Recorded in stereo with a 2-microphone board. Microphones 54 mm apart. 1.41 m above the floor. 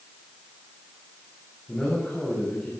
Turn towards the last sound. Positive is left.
turn(degrees=15)  # may be behind; listen again after turning